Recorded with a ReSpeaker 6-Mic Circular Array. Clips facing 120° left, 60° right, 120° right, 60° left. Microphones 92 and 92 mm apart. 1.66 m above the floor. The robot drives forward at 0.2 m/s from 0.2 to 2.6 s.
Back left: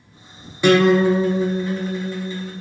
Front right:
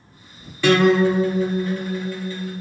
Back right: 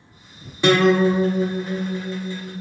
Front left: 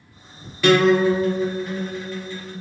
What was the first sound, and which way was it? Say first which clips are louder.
A guitar: back left 1 dB, even; 175° right.